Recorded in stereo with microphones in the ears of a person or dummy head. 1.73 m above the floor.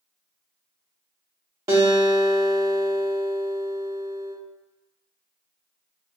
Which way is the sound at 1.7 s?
30° right (ahead or behind).